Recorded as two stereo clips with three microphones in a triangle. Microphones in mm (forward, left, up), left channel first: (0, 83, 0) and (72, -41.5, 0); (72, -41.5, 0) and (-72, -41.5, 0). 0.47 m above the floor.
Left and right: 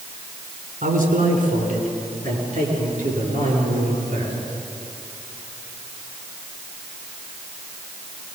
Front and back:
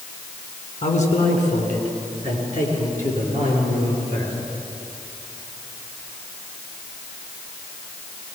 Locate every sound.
0.8 s a man speaking: 35° right, 4.5 m; by 4.3 s 20° right, 9.5 m